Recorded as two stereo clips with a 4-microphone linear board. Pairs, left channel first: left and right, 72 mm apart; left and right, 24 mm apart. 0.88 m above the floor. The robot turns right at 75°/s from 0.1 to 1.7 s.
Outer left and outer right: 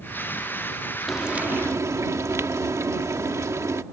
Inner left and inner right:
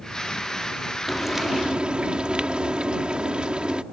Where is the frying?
Straight behind; by 3.8 s 135° right.